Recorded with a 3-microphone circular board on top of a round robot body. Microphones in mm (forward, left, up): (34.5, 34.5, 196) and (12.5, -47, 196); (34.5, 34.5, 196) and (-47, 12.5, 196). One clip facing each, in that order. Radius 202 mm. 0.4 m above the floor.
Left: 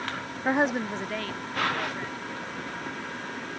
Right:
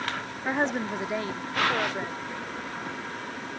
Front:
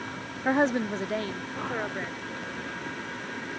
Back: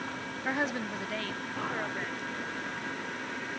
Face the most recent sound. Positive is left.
turn(degrees=-55)